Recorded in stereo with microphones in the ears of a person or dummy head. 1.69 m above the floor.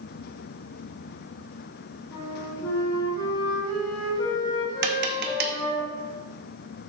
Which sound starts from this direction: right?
Tapping, at 4.8 s.